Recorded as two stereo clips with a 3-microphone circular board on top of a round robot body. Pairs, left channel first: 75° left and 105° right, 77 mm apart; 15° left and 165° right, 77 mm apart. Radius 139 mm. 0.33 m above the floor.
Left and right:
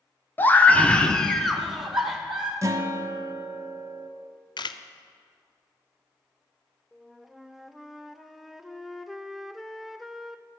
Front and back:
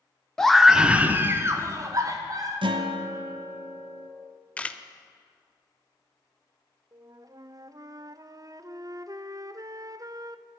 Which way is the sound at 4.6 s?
90° left.